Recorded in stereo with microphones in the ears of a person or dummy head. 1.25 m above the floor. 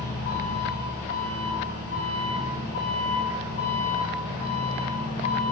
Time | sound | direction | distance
0.0 | an engine running | 50° left (ahead or behind) | 6.5 m